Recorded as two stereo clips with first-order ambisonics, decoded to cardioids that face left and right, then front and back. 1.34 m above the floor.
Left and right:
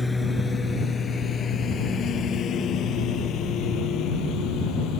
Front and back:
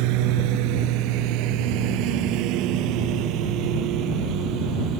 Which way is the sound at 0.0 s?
175° left.